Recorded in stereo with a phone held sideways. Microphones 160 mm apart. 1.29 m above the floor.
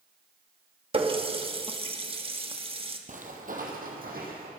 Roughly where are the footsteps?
Right.